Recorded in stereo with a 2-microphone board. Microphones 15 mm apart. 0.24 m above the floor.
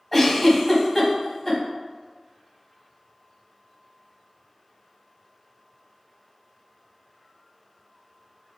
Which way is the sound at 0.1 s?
20° left (ahead or behind).